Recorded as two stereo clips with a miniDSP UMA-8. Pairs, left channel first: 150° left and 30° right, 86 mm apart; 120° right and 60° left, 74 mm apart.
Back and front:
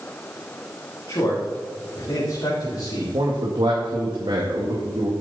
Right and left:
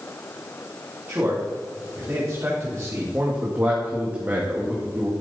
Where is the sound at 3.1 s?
5° right, 2 m.